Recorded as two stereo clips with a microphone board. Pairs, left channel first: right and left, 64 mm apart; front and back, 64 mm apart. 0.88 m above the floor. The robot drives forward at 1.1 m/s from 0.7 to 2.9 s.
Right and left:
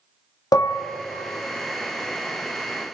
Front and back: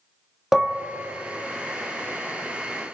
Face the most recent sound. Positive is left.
turn(degrees=-165)